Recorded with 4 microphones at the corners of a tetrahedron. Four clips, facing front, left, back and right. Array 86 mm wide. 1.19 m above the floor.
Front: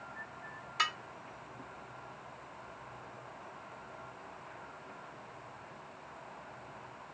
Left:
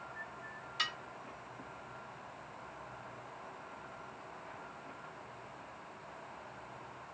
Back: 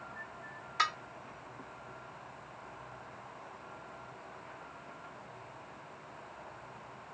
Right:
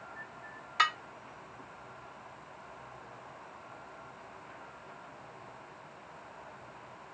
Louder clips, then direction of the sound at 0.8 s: Right 11 dB, back 2 dB; 110° right.